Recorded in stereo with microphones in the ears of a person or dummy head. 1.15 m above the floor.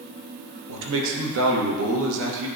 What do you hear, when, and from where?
0.7 s a man speaking: 75° right (ahead or behind), 1.0 m